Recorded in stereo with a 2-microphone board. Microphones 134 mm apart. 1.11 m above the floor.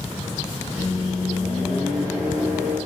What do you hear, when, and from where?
0.8 s a microwave: 25° right (ahead or behind), 2.0 m